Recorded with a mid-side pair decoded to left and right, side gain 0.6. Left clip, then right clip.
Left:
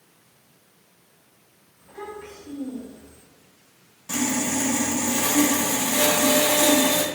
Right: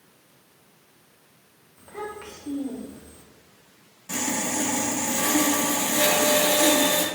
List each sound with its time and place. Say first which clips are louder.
1.8 s a child speaking: right 2 dB; 70° right, 1.8 m; by 3.2 s 30° right, 1.2 m
4.1 s sawing: left 2 dB; 15° left, 0.9 m